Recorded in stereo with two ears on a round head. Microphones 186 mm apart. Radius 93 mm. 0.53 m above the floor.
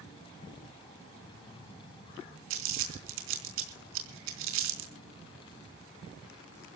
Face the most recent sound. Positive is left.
turn(degrees=-70)  # may be behind; listen again after turning